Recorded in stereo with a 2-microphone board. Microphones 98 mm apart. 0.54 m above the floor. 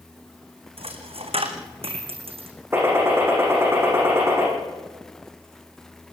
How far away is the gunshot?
About 9.5 m.